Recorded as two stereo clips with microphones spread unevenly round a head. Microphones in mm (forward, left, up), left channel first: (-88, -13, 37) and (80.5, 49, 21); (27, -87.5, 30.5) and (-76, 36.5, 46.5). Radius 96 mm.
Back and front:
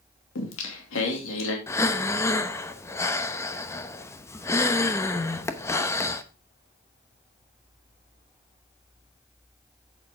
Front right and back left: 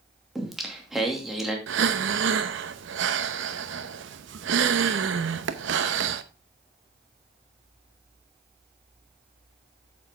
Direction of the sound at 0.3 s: 140° right.